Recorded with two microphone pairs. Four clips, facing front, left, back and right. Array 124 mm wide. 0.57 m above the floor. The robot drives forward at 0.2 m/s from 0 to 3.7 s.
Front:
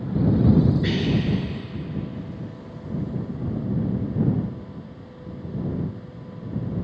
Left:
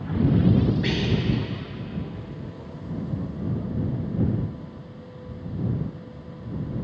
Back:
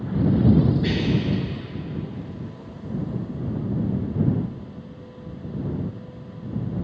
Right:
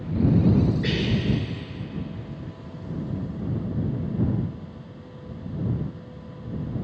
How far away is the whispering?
About 4 m.